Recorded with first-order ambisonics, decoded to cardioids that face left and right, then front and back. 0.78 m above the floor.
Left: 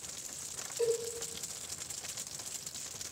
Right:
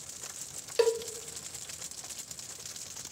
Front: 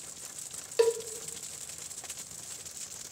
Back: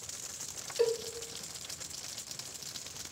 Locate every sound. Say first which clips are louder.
0.8 s a cowbell: right 5 dB, front 4 dB; 55° right, 0.7 m